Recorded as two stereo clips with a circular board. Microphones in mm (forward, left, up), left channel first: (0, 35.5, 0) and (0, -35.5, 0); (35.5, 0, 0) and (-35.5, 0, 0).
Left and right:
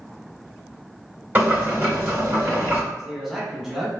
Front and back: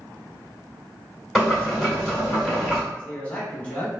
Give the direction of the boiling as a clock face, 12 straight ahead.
3 o'clock.